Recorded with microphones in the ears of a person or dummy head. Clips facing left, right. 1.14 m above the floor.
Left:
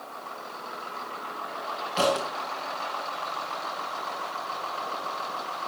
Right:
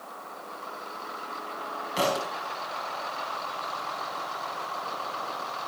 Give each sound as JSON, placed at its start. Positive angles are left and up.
{"t": 2.0, "sound": "a thud", "side_deg": -20, "distance_m": 3.5}